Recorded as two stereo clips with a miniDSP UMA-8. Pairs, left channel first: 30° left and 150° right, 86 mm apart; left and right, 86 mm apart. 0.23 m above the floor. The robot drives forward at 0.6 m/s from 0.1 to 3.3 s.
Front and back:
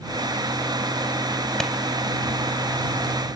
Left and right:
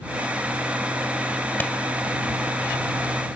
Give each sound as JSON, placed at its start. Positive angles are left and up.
{"t": 1.6, "sound": "a clap", "azimuth_deg": 100, "distance_m": 0.9}